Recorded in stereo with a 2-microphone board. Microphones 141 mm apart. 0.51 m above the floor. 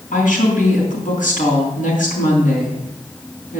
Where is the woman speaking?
80° left, 4 m.